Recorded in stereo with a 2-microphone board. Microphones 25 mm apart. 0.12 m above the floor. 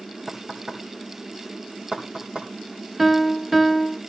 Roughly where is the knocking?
Right.